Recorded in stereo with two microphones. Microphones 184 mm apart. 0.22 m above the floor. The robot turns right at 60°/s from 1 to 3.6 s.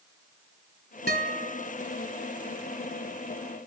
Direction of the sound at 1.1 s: 105° left.